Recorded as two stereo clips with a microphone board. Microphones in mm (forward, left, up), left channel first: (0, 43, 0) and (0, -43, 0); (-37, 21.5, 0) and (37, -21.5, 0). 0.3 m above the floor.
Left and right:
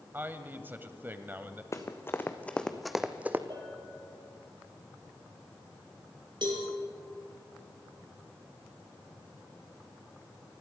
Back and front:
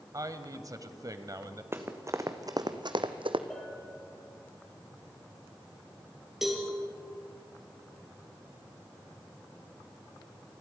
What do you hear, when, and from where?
0.1 s a man speaking: 35° right, 1.3 m
1.7 s running footsteps: 35° left, 1.8 m; by 3.4 s 25° right, 1.2 m
3.5 s a bell: 125° right, 5 m
6.4 s a cowbell: 115° right, 4.5 m